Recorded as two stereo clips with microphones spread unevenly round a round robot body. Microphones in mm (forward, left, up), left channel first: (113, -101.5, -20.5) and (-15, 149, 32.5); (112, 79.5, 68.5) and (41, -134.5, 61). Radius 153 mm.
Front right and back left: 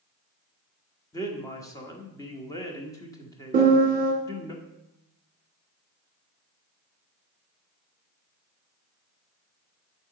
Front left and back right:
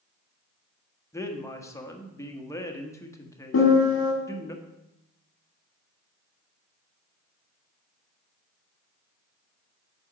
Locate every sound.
1.1 s a man speaking: straight ahead, 1.5 m
3.5 s a piano: 55° left, 1.9 m